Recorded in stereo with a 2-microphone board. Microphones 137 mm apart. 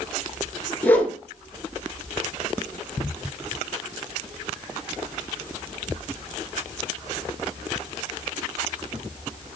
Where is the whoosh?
10° left (ahead or behind), 1.8 m.